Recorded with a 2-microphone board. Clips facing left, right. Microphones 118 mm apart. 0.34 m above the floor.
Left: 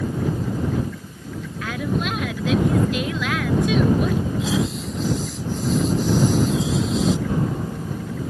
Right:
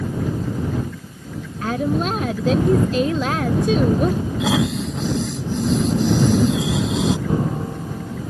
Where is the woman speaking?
35° right (ahead or behind).